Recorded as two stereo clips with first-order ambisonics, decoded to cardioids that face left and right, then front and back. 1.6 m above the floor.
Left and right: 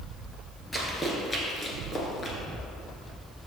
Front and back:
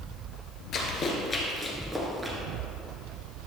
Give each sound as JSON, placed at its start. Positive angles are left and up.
{"t": 0.7, "sound": "running footsteps", "azimuth_deg": 5, "distance_m": 1.8}